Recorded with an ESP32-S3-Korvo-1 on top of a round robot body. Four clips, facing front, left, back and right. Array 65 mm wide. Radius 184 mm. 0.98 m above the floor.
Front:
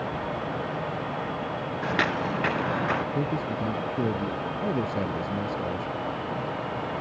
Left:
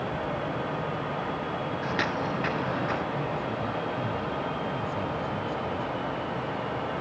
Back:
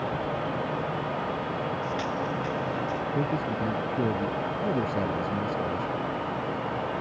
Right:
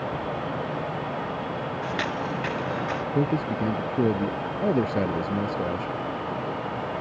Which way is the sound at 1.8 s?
10° left.